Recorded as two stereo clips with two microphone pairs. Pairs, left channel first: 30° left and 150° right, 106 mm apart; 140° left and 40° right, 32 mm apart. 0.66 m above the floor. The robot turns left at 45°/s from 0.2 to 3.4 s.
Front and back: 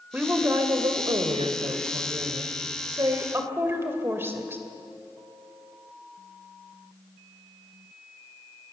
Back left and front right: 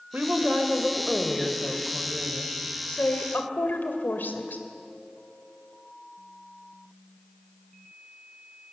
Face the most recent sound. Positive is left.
turn(degrees=140)